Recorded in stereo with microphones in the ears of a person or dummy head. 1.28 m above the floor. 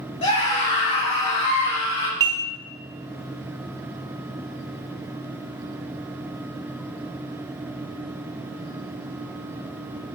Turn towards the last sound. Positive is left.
turn(degrees=-25)  # may be behind; listen again after turning